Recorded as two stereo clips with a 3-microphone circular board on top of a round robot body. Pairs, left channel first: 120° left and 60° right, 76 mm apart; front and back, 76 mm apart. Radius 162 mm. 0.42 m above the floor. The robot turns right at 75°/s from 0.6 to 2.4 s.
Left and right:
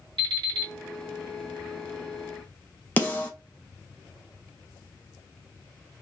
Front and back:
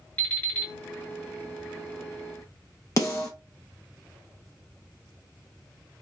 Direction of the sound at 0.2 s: 70° right.